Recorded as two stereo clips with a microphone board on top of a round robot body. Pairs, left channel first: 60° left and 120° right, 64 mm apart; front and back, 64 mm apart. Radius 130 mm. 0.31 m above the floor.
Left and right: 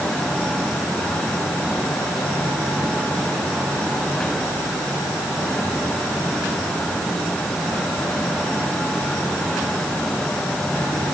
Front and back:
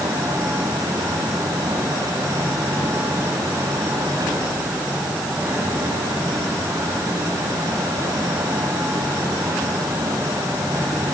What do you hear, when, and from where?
Only background noise.